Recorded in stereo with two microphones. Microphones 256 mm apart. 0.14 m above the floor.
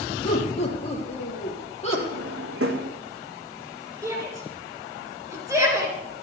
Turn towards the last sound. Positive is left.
turn(degrees=-10)  # may be behind; listen again after turning